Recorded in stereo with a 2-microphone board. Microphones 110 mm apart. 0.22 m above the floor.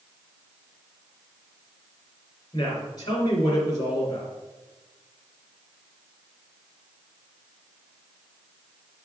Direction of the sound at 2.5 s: 40° left (ahead or behind).